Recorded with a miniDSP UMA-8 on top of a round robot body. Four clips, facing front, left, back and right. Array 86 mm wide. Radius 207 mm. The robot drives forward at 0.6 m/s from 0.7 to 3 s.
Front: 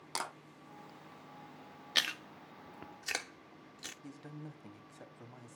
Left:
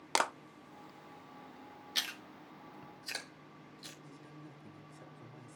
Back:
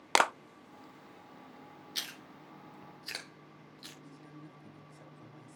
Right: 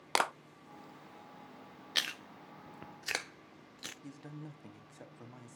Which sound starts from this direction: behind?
A clap, at 0.1 s.